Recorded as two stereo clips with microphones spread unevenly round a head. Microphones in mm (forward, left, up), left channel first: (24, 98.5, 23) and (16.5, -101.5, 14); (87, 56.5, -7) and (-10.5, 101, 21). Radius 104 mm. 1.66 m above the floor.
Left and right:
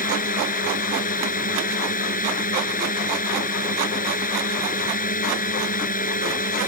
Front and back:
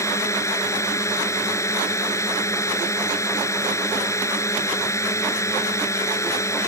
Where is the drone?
40° left.